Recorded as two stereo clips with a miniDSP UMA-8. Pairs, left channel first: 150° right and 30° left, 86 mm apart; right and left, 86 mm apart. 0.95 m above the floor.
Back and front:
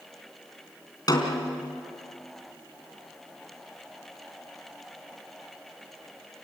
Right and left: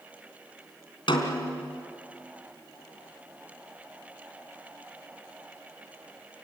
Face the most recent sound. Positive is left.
turn(degrees=-110)